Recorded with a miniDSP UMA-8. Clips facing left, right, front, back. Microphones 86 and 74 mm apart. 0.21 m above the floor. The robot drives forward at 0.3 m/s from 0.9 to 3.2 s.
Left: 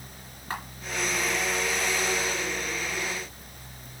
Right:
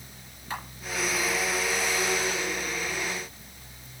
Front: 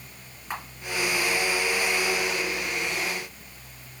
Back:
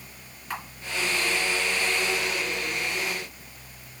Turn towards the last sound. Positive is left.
turn(degrees=80)